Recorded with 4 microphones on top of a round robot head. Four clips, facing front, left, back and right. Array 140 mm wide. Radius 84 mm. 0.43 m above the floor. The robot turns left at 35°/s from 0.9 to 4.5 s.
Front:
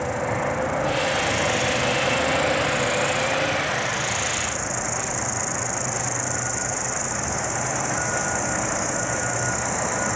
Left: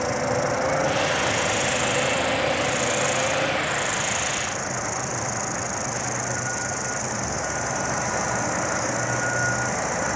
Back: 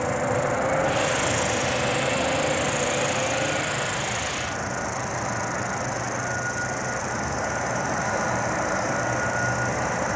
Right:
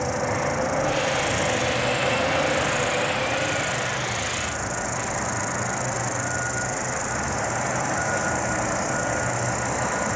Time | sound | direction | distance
0.0 | an insect | 160° left | ?